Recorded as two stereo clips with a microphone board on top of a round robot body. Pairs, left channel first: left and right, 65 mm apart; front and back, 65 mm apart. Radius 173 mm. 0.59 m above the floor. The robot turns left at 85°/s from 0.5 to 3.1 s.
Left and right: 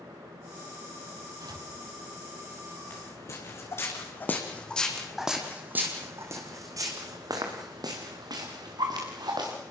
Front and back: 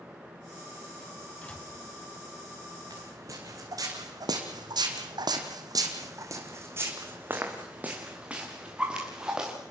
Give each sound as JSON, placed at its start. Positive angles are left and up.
{"t": 1.4, "sound": "a door slam", "azimuth_deg": -70, "distance_m": 4.5}
{"t": 2.9, "sound": "footsteps", "azimuth_deg": 150, "distance_m": 4.0}